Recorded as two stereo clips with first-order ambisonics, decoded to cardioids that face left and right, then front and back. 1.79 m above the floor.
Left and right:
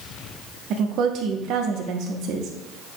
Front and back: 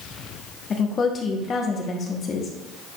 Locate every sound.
0.7 s a woman speaking: 60° right, 1.2 m